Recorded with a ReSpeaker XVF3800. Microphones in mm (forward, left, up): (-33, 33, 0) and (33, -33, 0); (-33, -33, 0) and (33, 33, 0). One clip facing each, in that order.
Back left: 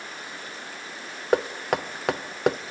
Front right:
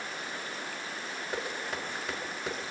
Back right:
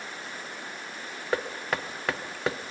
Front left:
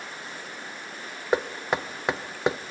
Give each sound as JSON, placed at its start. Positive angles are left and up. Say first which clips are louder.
{"t": 1.3, "sound": "knocking", "louder": "back left 14 dB, front left 4 dB", "azimuth_deg": 115, "distance_m": 0.5}